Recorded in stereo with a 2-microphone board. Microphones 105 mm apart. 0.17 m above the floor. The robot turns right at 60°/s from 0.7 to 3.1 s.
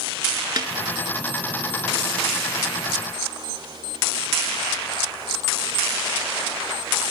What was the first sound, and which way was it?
A snare drum, 45° right (ahead or behind).